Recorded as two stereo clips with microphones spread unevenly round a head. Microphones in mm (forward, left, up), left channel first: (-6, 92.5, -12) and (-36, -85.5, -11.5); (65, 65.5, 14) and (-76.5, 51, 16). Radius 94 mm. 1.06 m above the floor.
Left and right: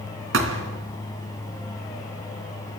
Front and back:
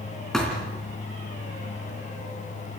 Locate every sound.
0.3 s a thud: 80° right, 3 m